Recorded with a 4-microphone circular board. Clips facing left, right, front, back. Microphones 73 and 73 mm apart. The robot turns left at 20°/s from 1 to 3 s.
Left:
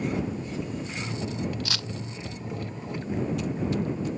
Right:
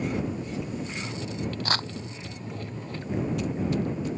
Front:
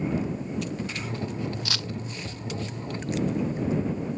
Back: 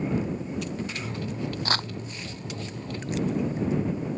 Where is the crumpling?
135° right; by 1.9 s 140° right.